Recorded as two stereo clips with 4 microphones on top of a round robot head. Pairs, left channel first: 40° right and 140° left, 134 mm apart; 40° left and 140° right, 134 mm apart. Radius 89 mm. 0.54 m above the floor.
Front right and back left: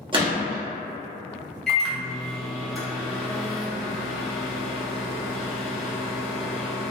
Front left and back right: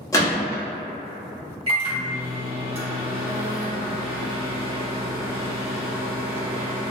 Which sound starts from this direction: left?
A gunshot, at 0.1 s.